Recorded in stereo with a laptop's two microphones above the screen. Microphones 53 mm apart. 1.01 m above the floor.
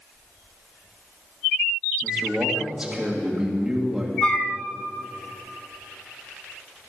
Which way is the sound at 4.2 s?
25° left (ahead or behind).